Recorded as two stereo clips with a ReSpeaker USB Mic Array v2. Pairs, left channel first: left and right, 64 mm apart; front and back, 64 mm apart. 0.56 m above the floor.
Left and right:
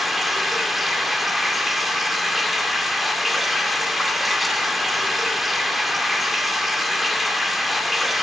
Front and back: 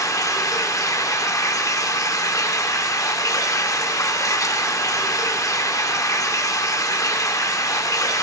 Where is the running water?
Straight ahead, 1.1 m.